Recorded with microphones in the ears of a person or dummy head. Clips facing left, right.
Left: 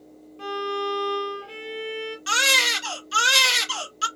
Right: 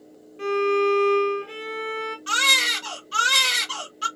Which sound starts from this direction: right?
A violin, at 0.4 s.